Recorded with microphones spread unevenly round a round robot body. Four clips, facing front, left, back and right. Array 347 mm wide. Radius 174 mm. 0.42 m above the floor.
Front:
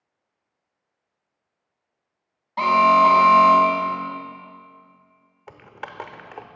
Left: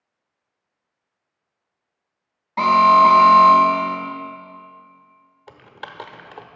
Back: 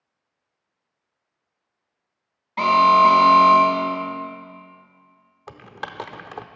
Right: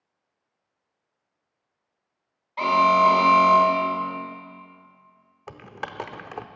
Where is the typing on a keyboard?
125° right, 0.6 m.